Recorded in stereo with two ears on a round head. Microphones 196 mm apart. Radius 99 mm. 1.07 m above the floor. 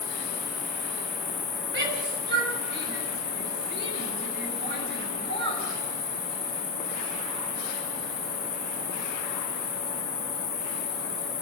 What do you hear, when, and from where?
0.0 s an insect: 15° left (ahead or behind), 2.5 m
1.7 s a shout: 55° right (ahead or behind), 6 m